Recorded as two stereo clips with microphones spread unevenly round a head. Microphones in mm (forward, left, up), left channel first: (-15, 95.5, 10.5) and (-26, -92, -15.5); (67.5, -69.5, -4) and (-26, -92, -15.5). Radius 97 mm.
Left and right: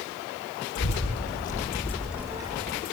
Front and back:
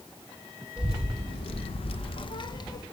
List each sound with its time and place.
0.8 s a child speaking: 80° left, 1.6 m; by 2.8 s 30° right, 2 m